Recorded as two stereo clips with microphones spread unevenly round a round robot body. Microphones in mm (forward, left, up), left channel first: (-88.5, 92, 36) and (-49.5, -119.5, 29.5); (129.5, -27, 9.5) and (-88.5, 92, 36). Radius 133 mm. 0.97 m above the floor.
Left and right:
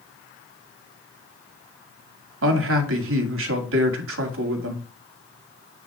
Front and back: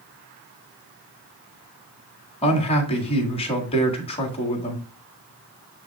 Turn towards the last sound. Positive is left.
turn(degrees=-95)